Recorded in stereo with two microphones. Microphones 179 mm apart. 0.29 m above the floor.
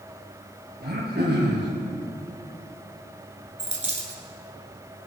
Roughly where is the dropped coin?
Right.